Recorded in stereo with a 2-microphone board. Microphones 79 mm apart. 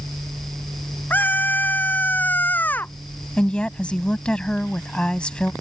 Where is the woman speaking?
15° left (ahead or behind).